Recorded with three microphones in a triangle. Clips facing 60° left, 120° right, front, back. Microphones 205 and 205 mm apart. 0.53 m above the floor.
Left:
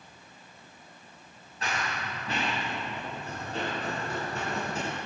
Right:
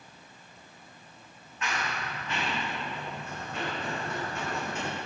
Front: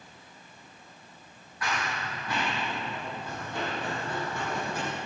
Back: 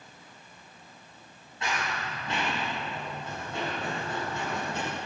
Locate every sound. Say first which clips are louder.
1.6 s running footsteps: even, even; 115° left, 5 m